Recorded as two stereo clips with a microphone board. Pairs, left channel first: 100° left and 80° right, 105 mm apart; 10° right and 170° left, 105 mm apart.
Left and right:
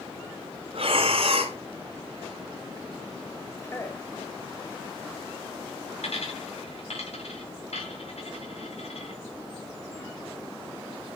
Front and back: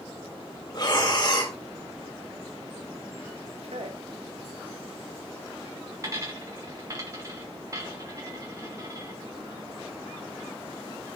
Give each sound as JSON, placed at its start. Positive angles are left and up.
{"t": 0.7, "sound": "breathing", "azimuth_deg": -60, "distance_m": 3.0}
{"t": 3.6, "sound": "a man speaking", "azimuth_deg": 165, "distance_m": 3.0}
{"t": 6.0, "sound": "a dropped coin", "azimuth_deg": 110, "distance_m": 5.5}